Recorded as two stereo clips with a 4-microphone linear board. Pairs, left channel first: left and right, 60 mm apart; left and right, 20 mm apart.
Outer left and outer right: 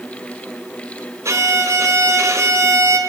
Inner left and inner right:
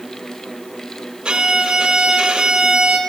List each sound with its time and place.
1.2 s a violin: 55° right (ahead or behind), 2.5 m